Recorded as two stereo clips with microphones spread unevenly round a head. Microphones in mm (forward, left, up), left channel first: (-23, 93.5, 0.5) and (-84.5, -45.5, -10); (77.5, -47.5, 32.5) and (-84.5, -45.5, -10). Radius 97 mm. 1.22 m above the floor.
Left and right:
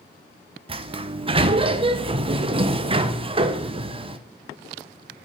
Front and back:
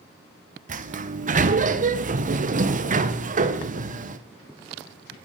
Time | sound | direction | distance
0.7 | a sliding door | 165° right | 0.8 m